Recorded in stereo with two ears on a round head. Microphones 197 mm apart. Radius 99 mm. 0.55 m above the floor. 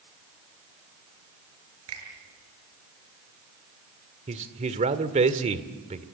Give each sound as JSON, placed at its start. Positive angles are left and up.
{"t": 1.9, "sound": "a finger snap", "side_deg": -70, "distance_m": 7.0}
{"t": 4.3, "sound": "a man speaking", "side_deg": -30, "distance_m": 1.6}